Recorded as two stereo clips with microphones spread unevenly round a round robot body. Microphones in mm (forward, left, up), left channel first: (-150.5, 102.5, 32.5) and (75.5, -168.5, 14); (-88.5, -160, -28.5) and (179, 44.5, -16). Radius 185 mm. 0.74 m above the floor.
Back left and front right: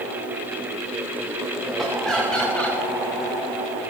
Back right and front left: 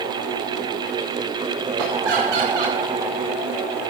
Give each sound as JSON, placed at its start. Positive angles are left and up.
{"t": 1.8, "sound": "laughter", "azimuth_deg": 40, "distance_m": 4.5}